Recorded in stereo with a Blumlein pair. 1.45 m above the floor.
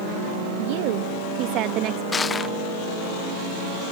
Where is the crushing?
20° left.